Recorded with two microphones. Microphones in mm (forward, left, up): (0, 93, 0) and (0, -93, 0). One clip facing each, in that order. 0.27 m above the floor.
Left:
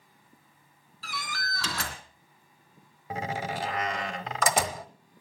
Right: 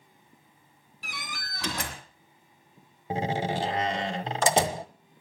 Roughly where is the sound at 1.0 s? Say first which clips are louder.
Left 4 dB; centre.